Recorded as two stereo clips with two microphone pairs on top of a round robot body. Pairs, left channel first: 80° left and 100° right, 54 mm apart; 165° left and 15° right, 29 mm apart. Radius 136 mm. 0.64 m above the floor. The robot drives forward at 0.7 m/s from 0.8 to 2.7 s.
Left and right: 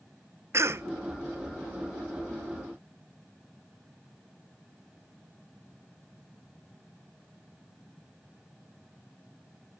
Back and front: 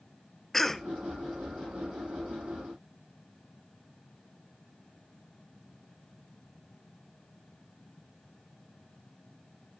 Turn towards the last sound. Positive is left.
turn(degrees=-150)